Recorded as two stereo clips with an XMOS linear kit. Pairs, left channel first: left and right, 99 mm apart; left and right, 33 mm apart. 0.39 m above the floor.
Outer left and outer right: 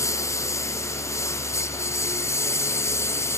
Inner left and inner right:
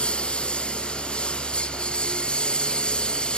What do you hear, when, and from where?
0.0 s a lawn mower: 30° left (ahead or behind)